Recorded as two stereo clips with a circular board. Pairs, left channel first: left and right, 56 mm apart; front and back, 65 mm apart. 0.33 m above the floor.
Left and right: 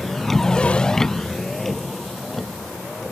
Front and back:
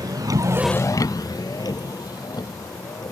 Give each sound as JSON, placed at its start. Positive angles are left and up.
{"t": 0.0, "sound": "a vehicle", "azimuth_deg": 175}